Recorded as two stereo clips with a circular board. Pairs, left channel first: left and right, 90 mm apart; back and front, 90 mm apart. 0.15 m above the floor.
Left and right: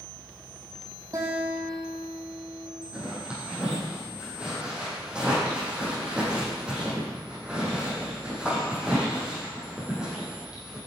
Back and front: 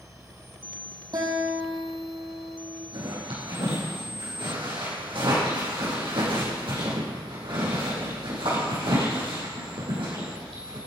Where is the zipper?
10° right, 6.5 m.